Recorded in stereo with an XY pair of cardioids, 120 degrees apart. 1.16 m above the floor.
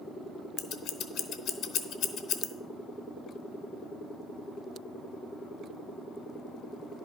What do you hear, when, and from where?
0.6 s scissors: 70° left, 0.9 m